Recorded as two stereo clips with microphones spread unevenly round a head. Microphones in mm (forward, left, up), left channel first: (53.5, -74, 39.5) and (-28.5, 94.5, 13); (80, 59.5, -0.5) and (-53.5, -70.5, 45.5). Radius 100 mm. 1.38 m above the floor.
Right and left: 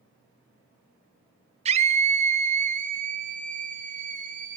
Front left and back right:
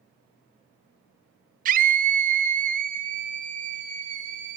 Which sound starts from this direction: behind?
A scream, at 1.6 s.